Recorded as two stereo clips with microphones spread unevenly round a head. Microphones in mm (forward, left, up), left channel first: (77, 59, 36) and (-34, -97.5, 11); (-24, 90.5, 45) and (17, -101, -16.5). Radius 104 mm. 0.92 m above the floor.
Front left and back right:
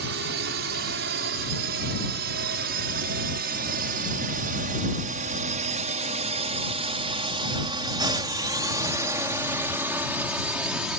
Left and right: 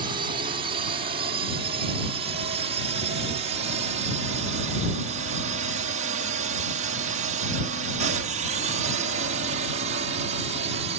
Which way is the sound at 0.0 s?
130° right.